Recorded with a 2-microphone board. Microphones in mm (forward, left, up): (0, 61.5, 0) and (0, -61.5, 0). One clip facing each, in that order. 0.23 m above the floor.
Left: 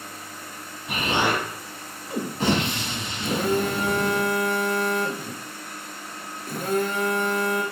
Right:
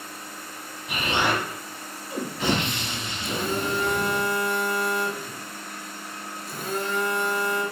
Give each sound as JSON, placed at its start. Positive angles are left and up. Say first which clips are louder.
{"t": 0.9, "sound": "an explosion", "louder": "left 1 dB", "side_deg": 40, "distance_m": 1.2}
{"t": 3.2, "sound": "a phone buzzing", "louder": "left 5 dB", "side_deg": 60, "distance_m": 0.7}